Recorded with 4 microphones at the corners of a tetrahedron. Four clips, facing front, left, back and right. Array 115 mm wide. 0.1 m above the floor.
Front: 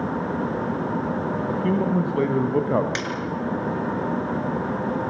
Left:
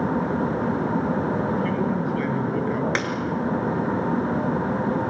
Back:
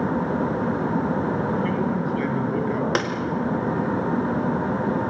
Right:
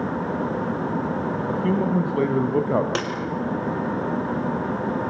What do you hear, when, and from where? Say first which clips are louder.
1.5 s a man speaking: right 2 dB, front 1 dB; 45° right, 3.5 m
3.0 s a snare drum: even, back 5 dB; 160° right, 4 m